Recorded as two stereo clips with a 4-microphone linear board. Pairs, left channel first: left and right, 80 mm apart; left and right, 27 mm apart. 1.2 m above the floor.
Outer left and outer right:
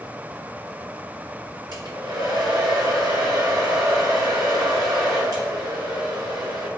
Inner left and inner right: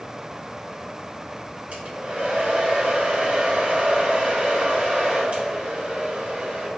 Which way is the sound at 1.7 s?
55° right (ahead or behind).